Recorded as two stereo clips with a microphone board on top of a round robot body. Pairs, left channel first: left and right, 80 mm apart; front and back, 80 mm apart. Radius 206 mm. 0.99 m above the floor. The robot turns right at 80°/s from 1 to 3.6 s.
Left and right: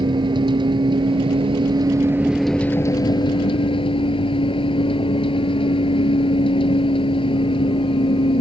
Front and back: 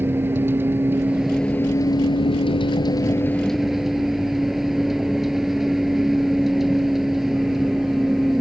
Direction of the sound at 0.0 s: 115° right.